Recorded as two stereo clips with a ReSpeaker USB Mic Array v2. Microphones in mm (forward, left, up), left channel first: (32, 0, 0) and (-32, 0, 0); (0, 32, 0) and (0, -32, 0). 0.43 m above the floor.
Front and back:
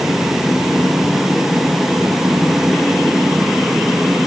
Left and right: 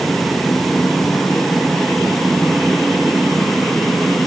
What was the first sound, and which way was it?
Only background noise.